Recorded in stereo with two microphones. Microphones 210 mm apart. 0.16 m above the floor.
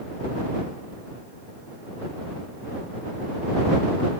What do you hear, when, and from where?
Only background noise.